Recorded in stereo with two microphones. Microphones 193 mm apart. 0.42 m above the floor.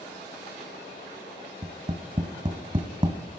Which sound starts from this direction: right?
Tapping, at 1.6 s.